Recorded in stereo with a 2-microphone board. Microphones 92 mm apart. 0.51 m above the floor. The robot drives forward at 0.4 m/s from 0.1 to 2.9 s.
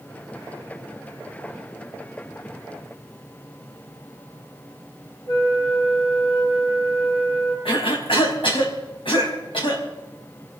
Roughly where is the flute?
Left.